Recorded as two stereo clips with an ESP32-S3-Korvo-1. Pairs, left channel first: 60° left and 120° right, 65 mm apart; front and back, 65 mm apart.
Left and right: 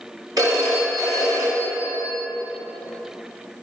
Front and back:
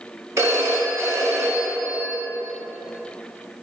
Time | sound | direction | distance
0.4 | a phone ringing | 135° right | 1.9 m